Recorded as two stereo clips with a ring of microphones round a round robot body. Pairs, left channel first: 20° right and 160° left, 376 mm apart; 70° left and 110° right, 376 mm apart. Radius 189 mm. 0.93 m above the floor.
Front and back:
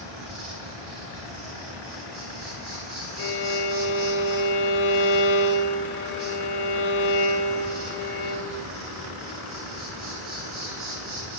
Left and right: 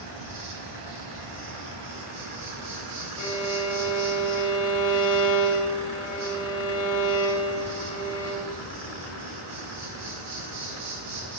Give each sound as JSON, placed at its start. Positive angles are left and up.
{"t": 0.0, "sound": "an insect", "azimuth_deg": -165, "distance_m": 6.0}
{"t": 3.2, "sound": "a violin", "azimuth_deg": 35, "distance_m": 1.1}